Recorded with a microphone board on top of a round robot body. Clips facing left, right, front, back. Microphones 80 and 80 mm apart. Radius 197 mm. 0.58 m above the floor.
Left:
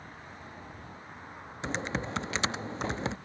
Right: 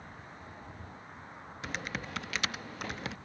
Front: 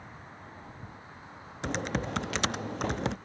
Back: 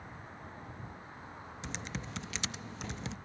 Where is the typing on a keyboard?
30° left.